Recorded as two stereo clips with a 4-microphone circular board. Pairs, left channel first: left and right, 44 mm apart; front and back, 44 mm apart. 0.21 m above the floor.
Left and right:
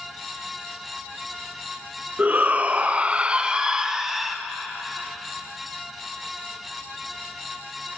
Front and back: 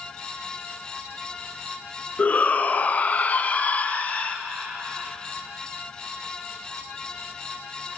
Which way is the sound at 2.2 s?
45° right.